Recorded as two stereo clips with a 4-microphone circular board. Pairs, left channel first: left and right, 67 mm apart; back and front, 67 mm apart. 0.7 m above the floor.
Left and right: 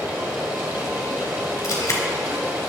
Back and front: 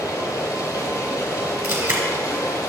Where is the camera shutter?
45° left, 2.5 m.